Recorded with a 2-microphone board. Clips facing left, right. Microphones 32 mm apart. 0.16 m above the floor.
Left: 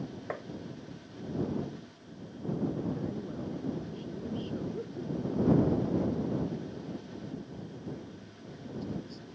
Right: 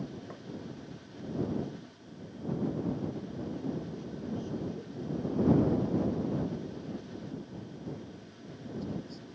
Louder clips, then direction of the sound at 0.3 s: Left 8 dB; 60° left (ahead or behind).